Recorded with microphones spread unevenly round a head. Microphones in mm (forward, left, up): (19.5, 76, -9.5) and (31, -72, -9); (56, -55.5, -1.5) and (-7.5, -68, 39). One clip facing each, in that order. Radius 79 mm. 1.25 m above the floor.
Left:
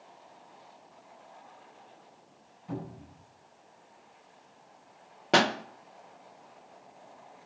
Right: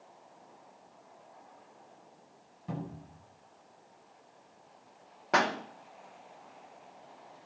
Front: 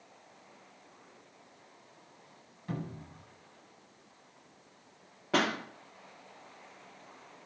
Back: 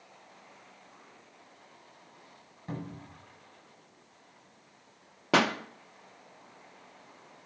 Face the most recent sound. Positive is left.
turn(degrees=155)